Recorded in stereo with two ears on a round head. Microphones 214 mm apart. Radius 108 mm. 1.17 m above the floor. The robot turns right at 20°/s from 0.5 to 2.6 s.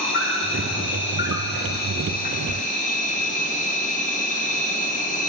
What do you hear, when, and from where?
0.0 s an insect: 95° left, 1.0 m; by 5.3 s 135° left, 1.0 m